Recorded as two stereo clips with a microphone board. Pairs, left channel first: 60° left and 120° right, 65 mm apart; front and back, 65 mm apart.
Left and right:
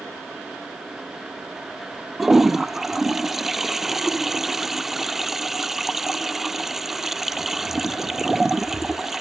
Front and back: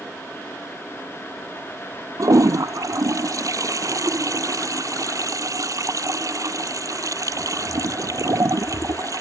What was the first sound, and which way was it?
A toilet flushing, 155° left.